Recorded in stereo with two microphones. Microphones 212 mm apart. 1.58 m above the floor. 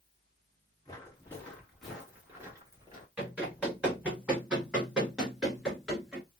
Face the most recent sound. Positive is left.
turn(degrees=0)  # may be behind; listen again after turning